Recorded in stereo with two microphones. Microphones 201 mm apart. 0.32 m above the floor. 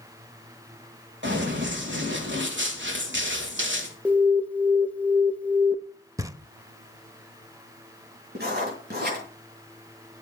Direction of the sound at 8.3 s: 50° right (ahead or behind).